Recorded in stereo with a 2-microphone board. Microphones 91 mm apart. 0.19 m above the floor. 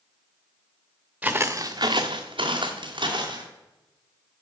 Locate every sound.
1.2 s footsteps: 15° right (ahead or behind), 0.9 m; by 3.5 s 55° right (ahead or behind), 2 m